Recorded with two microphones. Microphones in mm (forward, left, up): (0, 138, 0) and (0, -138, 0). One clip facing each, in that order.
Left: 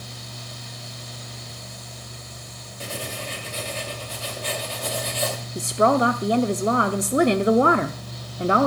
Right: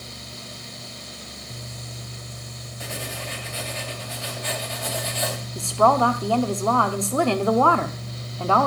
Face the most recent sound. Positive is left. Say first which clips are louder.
# left 1 dB
turn(degrees=20)  # may be behind; listen again after turning